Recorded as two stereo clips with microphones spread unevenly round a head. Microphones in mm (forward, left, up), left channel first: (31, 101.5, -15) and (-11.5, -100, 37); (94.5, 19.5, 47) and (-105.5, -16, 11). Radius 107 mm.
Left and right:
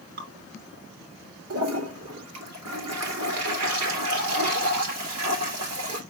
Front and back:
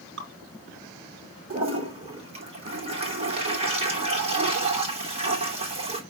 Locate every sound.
0.2 s dripping: 135° right, 3.5 m
1.5 s a toilet flushing: 110° right, 3 m